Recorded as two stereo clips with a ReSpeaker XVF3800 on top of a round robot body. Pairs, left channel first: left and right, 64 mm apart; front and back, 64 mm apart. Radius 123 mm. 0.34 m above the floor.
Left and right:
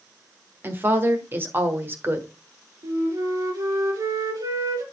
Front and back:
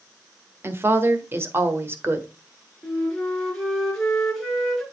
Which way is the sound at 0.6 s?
135° right.